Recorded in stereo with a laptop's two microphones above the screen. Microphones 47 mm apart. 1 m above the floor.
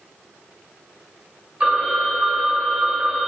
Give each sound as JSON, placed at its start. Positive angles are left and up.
{"t": 1.6, "sound": "a phone ringing", "side_deg": -25, "distance_m": 2.5}